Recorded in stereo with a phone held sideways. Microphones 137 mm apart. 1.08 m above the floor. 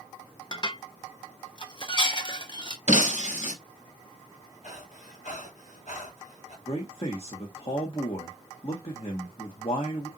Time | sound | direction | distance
0.5 | dishes clattering | 35° left (ahead or behind) | 0.8 m
2.9 | breaking glass | 60° left (ahead or behind) | 2.5 m
4.6 | breathing | 60° left (ahead or behind) | 3 m
6.7 | a man speaking | 45° left (ahead or behind) | 1.2 m